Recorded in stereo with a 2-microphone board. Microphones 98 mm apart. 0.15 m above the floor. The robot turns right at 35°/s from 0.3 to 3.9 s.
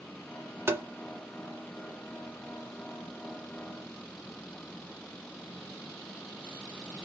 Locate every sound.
0.7 s tapping: 25° right (ahead or behind), 0.8 m